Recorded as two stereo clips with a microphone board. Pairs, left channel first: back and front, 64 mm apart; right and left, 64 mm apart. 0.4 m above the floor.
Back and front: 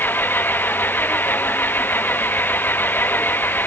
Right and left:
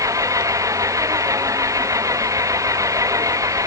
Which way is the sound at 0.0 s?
120° left.